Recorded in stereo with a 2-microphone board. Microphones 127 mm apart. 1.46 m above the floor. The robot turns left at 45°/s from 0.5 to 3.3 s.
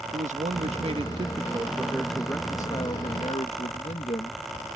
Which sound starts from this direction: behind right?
A man speaking, at 0.1 s.